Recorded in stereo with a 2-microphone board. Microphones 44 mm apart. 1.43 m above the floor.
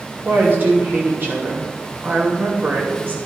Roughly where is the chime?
No chime in this recording.